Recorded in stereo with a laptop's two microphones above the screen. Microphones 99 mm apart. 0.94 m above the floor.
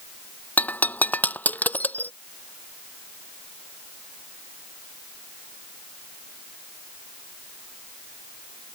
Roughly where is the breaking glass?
Centre.